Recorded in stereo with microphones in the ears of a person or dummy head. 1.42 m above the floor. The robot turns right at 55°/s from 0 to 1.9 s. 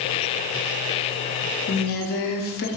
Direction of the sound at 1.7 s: 45° left (ahead or behind).